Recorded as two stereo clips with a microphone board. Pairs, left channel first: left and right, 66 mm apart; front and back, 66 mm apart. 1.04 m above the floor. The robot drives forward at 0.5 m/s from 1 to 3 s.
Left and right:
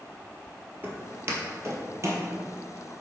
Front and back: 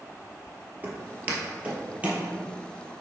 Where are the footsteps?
135° right, 1.4 m; by 2.2 s 115° right, 1.7 m.